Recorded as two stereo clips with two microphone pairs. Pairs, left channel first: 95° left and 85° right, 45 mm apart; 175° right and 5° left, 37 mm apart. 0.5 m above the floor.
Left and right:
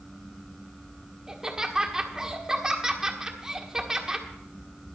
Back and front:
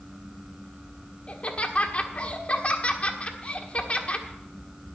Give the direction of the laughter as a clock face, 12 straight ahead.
5 o'clock.